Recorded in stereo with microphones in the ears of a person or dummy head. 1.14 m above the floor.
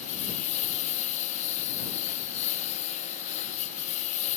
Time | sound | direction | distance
0.0 | a lawn mower | 40° left (ahead or behind) | ?